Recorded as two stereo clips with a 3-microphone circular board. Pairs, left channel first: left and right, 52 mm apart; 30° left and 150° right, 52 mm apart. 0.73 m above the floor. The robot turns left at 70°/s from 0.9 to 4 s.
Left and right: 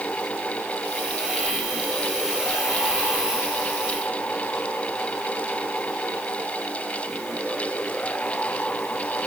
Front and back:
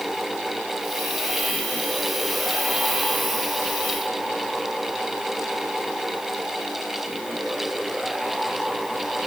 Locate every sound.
Only background noise.